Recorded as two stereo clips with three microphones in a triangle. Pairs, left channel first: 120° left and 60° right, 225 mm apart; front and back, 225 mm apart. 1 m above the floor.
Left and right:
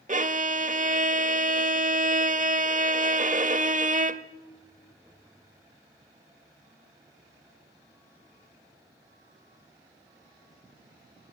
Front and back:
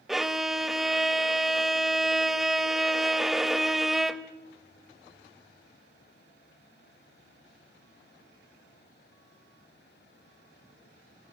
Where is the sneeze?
No sneeze in this recording.